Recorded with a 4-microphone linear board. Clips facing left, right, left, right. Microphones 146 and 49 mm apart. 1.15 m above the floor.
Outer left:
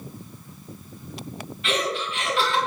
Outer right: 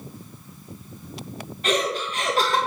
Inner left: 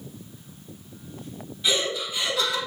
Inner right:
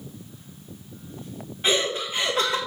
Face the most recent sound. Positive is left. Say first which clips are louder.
# outer right 2 dB, inner right 2 dB
turn(degrees=-45)  # may be behind; listen again after turning